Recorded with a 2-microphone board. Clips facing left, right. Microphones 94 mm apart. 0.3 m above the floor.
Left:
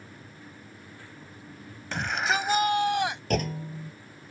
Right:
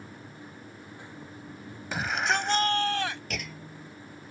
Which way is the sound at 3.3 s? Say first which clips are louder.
Left 10 dB; 45° left (ahead or behind).